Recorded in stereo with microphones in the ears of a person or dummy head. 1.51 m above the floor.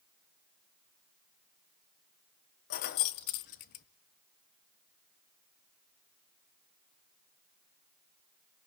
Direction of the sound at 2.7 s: 50° left (ahead or behind).